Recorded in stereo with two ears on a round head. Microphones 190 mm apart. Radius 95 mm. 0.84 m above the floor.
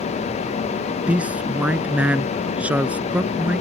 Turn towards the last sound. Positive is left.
turn(degrees=-5)  # may be behind; listen again after turning